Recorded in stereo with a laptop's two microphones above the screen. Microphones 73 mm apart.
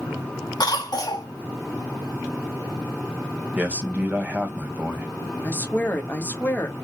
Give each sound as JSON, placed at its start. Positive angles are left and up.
{"t": 0.6, "sound": "a cough", "side_deg": 55, "distance_m": 1.8}
{"t": 3.6, "sound": "a man speaking", "side_deg": -20, "distance_m": 1.4}
{"t": 5.4, "sound": "a woman speaking", "side_deg": 25, "distance_m": 1.4}